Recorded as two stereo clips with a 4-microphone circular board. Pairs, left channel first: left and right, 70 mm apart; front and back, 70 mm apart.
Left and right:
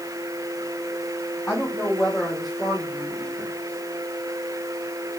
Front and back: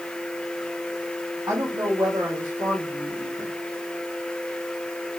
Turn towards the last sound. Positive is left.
turn(degrees=-165)